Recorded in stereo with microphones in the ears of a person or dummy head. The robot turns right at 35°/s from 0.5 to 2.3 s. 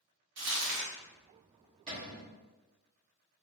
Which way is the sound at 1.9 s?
30° right (ahead or behind).